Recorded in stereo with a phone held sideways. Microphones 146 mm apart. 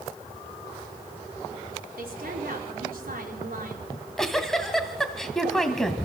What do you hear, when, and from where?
2.0 s a woman speaking: 85° right, 5 m
3.9 s a giggle: 5° left (ahead or behind), 1.9 m